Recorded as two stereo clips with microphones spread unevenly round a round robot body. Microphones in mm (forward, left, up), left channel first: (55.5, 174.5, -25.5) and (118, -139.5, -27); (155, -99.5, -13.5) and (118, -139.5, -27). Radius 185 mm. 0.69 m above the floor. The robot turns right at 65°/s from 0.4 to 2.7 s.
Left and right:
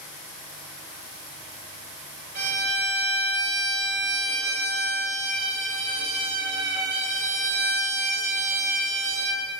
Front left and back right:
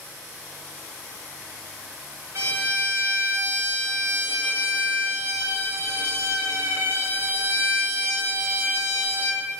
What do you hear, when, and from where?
2.4 s a violin: 120° right, 0.5 m; by 9.4 s 95° right, 0.5 m